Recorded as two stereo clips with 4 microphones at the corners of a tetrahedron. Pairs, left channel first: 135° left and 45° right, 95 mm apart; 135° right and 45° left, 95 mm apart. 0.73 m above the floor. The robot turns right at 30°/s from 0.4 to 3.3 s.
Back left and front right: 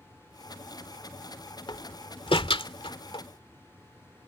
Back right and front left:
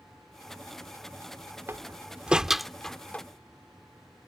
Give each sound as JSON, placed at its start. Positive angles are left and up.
{"t": 1.7, "sound": "a door slam", "azimuth_deg": 105}